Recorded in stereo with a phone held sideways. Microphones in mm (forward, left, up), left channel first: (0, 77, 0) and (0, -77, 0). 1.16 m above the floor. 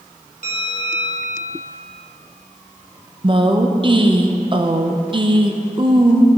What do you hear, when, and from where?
0.4 s a bell: 55° right (ahead or behind), 1.9 m
3.2 s a woman speaking: 35° right (ahead or behind), 0.8 m